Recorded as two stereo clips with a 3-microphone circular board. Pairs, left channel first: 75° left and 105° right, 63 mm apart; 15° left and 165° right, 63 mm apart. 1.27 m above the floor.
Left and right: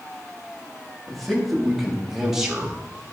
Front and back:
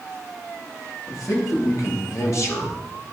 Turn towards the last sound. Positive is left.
turn(degrees=-30)